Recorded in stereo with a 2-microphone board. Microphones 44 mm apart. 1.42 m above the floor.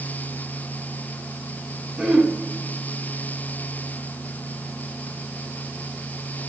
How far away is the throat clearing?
About 2 m.